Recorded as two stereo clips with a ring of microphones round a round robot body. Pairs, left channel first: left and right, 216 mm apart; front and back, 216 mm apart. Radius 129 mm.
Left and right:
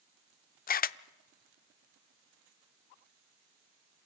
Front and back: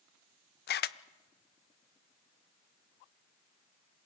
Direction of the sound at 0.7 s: 40° left.